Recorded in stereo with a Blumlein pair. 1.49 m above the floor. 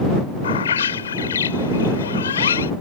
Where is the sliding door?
No sliding door in this recording.